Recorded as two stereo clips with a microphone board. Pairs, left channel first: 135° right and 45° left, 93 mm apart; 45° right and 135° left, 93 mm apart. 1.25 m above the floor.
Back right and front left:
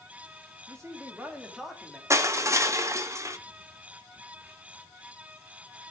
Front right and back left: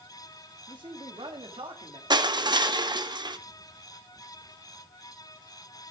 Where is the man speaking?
100° left, 2.5 m; by 2.0 s 140° left, 3 m.